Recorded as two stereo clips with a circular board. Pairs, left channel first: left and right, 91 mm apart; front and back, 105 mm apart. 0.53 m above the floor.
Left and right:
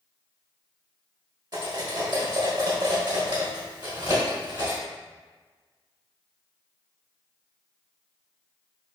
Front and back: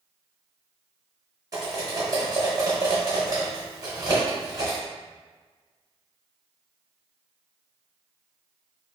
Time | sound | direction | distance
1.5 | cutlery clinking | 130° right | 1.1 m